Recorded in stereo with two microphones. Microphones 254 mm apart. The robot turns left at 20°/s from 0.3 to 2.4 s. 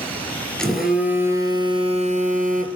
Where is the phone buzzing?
5° left, 1.5 m; by 2.7 s 35° right, 1.5 m.